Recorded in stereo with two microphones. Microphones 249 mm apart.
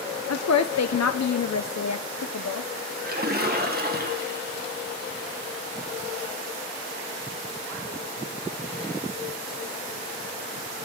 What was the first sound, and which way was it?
A woman speaking, 85° left.